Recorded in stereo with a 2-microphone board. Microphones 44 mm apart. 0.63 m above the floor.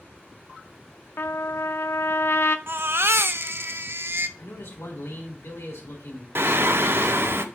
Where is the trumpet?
60° left (ahead or behind), 0.6 m.